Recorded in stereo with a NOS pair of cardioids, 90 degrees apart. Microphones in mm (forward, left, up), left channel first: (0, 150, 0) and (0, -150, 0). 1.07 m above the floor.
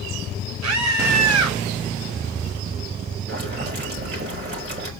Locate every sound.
0.6 s a scream: 60° right, 4.5 m
3.3 s boiling: 35° right, 4.5 m